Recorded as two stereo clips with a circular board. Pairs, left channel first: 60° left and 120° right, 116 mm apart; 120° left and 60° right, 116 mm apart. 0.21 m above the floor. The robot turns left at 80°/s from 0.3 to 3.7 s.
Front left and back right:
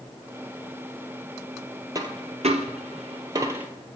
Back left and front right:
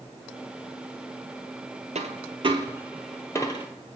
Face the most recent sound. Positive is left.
turn(degrees=160)